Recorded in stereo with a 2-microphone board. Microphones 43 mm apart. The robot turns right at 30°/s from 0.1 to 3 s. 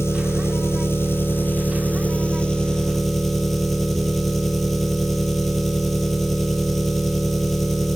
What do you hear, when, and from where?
0.0 s an engine running: 85° left, 4.5 m; by 8.0 s 175° left, 4.5 m